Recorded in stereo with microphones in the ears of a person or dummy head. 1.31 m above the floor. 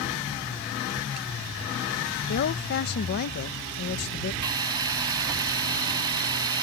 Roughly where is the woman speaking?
Left.